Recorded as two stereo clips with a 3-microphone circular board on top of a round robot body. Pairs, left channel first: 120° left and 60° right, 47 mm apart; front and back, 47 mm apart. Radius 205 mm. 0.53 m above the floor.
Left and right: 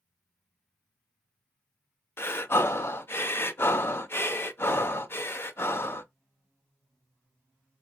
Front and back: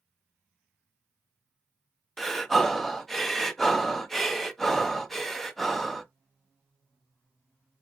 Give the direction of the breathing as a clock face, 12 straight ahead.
9 o'clock.